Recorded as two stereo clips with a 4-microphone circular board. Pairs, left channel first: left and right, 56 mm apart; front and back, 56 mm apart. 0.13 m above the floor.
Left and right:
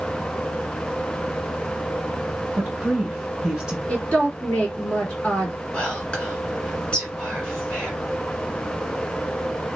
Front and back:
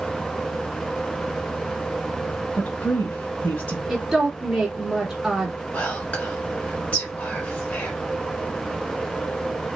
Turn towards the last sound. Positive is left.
turn(degrees=35)